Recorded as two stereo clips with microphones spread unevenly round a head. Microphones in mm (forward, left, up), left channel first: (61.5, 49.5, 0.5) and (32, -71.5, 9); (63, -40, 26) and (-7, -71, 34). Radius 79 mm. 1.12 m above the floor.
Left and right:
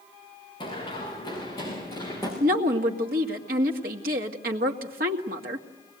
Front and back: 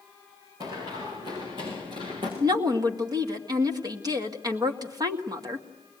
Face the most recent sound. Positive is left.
turn(degrees=-120)